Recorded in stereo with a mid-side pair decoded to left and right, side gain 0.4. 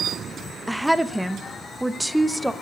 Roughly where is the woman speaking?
Ahead.